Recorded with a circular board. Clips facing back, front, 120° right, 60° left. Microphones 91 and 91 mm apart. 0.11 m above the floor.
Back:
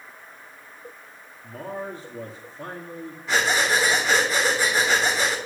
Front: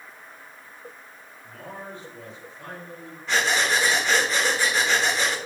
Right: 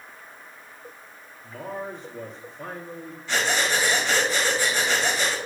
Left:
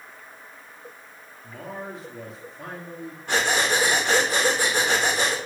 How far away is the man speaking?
About 2 m.